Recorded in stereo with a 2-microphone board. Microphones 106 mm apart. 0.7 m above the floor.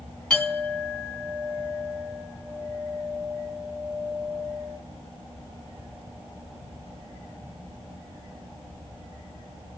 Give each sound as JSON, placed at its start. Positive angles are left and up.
{"t": 0.3, "sound": "a clink", "side_deg": 10, "distance_m": 4.0}